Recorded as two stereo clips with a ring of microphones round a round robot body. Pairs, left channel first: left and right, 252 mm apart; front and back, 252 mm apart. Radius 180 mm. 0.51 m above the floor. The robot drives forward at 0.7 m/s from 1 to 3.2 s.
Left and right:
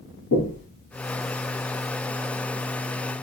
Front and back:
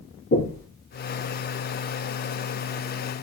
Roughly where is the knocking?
Ahead left.